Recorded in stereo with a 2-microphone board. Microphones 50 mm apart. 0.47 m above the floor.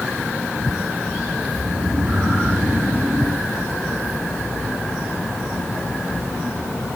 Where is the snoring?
40° right (ahead or behind), 5 m.